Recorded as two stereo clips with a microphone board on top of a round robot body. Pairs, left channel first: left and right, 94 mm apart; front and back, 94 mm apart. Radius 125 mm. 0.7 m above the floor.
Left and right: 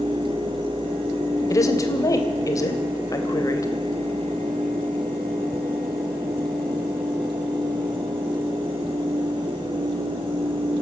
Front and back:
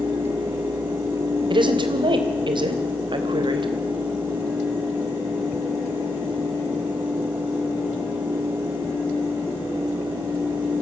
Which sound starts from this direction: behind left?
A woman speaking, at 1.5 s.